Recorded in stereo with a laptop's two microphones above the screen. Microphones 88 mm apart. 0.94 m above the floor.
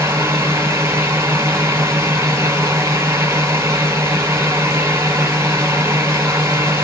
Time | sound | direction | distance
0.0 | a fan | 30° right (ahead or behind) | 1.9 m